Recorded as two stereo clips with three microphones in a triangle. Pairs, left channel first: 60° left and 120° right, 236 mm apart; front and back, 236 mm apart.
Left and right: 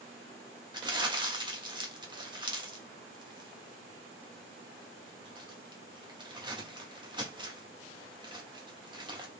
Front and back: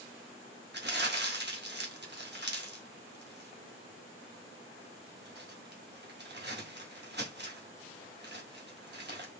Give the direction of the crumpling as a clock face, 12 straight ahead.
6 o'clock.